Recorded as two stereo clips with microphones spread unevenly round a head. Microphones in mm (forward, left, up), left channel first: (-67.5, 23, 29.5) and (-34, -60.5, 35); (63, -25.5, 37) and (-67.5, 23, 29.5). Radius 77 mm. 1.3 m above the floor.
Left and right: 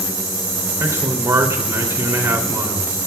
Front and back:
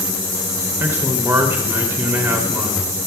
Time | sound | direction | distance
0.8 | a man speaking | 125° right | 3 m